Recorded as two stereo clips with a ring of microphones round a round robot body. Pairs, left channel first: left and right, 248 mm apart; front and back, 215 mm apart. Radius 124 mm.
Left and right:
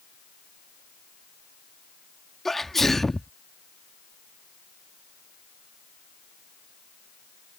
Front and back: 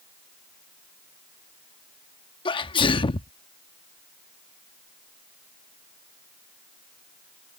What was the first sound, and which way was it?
A sneeze, 5° left.